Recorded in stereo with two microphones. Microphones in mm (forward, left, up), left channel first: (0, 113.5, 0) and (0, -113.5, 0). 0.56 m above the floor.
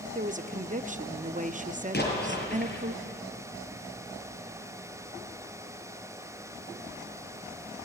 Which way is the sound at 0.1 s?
35° right (ahead or behind).